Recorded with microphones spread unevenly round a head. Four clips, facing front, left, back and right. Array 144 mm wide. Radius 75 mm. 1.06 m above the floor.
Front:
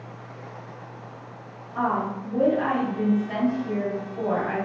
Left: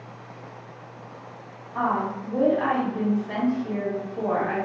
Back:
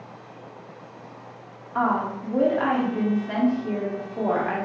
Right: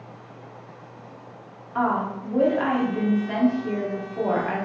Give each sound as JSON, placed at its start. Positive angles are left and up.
{"t": 1.8, "sound": "a woman speaking", "azimuth_deg": -155, "distance_m": 1.0}